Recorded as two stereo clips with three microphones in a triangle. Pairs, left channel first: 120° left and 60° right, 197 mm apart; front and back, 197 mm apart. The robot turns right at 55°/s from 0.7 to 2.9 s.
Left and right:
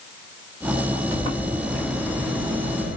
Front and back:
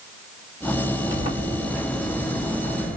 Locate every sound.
1.1 s a sliding door: 135° right, 6 m; by 3.0 s 35° right, 6 m